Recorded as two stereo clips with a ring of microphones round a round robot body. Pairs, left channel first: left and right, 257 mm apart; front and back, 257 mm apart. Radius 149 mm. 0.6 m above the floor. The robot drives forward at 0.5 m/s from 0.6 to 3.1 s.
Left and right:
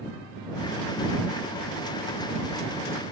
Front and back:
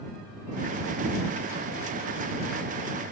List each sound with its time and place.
Only background noise.